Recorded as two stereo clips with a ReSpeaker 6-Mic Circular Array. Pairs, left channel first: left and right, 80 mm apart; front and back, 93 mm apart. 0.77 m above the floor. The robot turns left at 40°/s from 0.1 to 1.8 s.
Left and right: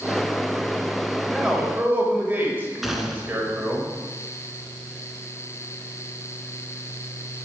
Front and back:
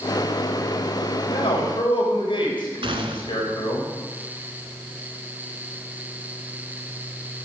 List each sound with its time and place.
1.3 s a man speaking: straight ahead, 3.5 m; by 3.8 s 25° right, 3.5 m
2.8 s a gunshot: straight behind, 1.4 m